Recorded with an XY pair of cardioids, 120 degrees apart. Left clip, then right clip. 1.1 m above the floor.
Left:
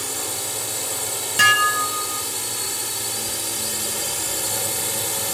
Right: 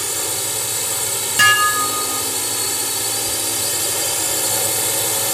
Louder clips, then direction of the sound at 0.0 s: Right 4 dB; 25° right.